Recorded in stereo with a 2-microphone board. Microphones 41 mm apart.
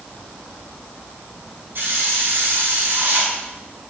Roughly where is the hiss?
Right.